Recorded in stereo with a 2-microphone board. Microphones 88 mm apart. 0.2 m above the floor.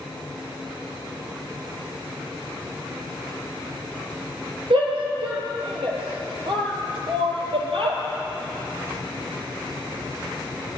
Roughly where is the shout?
Right.